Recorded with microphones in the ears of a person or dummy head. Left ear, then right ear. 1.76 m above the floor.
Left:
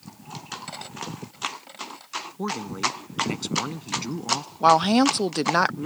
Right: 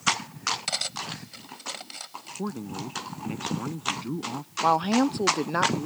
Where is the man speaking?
85° left.